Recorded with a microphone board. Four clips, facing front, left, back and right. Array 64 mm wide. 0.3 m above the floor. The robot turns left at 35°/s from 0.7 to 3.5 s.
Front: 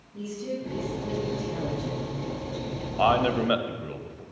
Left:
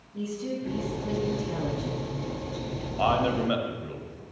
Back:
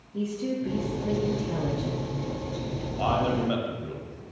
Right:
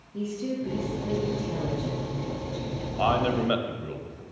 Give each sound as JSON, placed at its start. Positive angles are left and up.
{"t": 0.1, "sound": "a woman speaking", "azimuth_deg": -155, "distance_m": 3.5}
{"t": 3.0, "sound": "a man speaking", "azimuth_deg": 0, "distance_m": 1.0}